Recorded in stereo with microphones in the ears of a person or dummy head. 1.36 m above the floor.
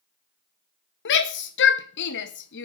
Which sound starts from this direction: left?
A shout, at 1.1 s.